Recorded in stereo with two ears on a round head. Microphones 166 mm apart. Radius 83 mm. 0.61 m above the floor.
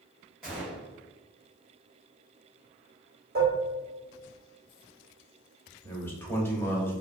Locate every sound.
0.4 s a gunshot: centre (ahead or behind), 1.8 m
3.4 s dishes clattering: 50° right (ahead or behind), 1.3 m
5.8 s a man speaking: 10° left (ahead or behind), 0.8 m